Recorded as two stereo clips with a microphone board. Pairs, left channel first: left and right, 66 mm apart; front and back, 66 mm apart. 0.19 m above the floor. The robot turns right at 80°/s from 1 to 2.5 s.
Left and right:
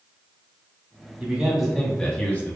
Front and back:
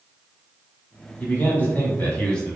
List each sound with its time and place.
1.2 s a man speaking: 35° right, 1.2 m; by 2.6 s 70° left, 1.2 m